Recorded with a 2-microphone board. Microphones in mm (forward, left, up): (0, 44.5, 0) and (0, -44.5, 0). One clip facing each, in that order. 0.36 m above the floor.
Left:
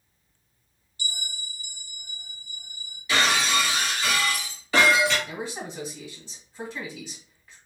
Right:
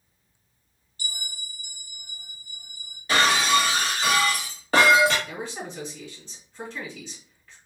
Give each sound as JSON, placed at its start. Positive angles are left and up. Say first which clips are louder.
{"t": 1.0, "sound": "a bell", "louder": "left 1 dB", "side_deg": -45, "distance_m": 0.7}
{"t": 3.1, "sound": "breaking glass", "louder": "right 3 dB", "side_deg": -50, "distance_m": 1.0}
{"t": 5.3, "sound": "a man speaking", "louder": "even", "side_deg": 10, "distance_m": 1.9}